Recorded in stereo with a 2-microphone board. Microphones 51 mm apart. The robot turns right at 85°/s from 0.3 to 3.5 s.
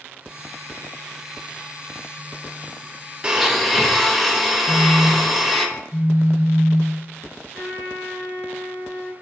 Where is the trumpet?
30° right (ahead or behind), 1.5 m.